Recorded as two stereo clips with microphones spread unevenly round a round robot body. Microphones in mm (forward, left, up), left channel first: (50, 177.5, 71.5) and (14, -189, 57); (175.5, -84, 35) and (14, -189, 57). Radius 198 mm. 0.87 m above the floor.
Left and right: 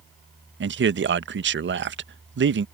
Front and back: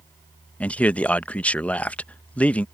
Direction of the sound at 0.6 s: 45° right.